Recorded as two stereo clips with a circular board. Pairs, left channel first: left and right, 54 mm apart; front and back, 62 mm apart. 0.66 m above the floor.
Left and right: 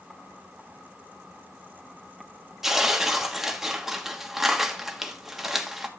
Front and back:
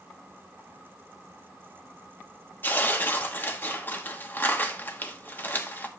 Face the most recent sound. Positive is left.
turn(degrees=-10)